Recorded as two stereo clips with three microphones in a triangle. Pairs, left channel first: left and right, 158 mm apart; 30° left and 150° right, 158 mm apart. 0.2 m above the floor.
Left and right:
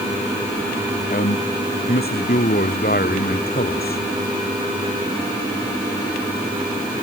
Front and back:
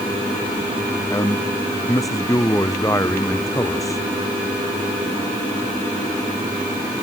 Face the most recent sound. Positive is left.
turn(degrees=100)